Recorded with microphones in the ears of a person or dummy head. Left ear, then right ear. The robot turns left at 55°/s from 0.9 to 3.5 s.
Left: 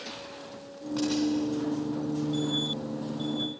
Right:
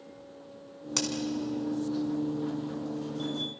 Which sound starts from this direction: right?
A crack, at 1.0 s.